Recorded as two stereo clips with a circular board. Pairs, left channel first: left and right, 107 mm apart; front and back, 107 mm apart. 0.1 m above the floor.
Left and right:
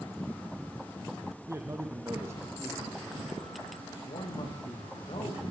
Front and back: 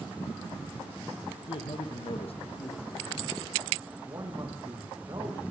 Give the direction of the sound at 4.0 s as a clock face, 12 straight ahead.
8 o'clock.